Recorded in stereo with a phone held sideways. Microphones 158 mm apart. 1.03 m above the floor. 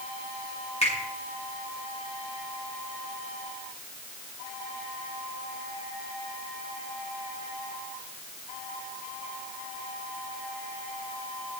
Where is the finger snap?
45° left (ahead or behind), 7 m.